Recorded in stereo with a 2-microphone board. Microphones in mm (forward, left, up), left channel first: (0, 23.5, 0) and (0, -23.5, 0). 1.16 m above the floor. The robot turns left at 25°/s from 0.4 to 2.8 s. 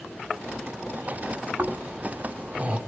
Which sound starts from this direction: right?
Snoring, at 1.6 s.